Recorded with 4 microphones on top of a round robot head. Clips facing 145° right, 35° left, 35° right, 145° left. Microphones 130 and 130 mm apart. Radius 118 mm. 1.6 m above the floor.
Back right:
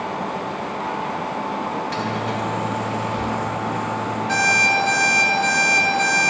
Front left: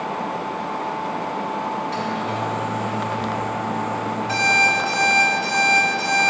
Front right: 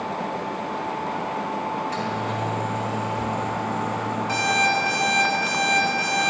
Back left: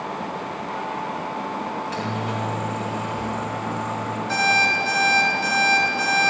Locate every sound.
1.7 s a microwave: 150° right, 3 m
4.3 s an alarm clock: 20° right, 1.1 m